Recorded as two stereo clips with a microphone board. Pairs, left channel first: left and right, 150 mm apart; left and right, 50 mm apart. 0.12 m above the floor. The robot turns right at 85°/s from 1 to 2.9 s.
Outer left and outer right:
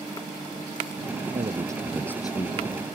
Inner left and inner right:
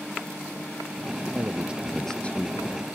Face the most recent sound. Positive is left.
turn(degrees=80)